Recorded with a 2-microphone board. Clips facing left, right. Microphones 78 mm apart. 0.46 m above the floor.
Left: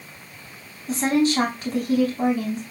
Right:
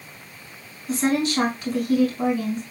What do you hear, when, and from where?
0.9 s a woman speaking: 40° left (ahead or behind), 3.5 m